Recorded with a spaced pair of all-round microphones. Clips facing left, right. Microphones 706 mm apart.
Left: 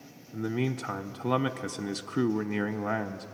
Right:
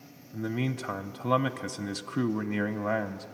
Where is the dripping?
No dripping in this recording.